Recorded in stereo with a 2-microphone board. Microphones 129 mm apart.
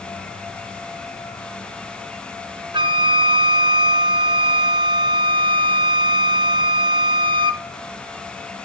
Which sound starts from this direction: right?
A flute, at 2.7 s.